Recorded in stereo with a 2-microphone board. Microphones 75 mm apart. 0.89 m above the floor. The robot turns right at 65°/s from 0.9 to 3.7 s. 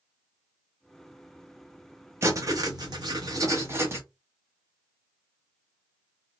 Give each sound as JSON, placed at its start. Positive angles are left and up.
{"t": 2.2, "sound": "writing", "azimuth_deg": -135, "distance_m": 0.9}